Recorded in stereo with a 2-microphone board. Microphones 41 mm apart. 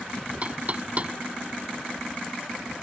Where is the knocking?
35° right (ahead or behind).